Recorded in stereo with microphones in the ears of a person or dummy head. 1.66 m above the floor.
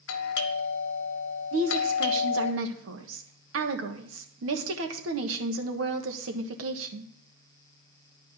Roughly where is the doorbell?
Left.